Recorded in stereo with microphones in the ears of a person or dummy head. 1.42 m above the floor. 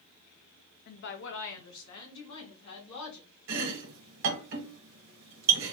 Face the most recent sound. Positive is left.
turn(degrees=-65)  # may be behind; listen again after turning